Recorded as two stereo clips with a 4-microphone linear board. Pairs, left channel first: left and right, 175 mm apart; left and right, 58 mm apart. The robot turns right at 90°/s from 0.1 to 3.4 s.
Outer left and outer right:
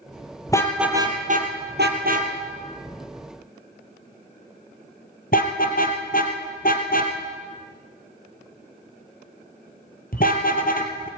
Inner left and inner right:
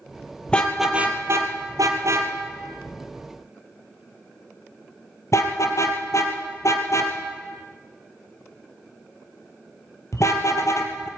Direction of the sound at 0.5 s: 20° left (ahead or behind).